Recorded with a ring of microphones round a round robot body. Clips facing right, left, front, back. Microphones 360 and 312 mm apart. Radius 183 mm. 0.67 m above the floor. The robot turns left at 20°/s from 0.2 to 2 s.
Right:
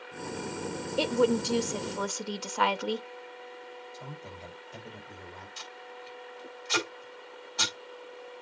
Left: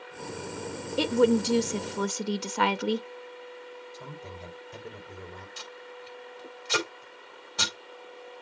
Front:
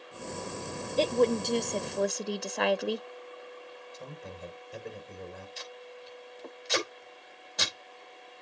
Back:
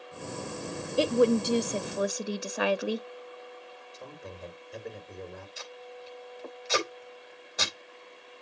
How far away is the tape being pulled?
About 4 m.